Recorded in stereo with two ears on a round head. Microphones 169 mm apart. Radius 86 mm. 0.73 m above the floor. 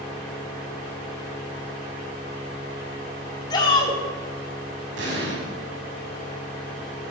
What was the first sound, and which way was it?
A shout, 25° left (ahead or behind).